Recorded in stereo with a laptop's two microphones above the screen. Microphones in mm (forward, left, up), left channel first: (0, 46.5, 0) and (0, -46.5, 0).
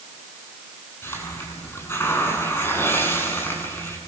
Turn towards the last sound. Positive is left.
turn(degrees=25)  # may be behind; listen again after turning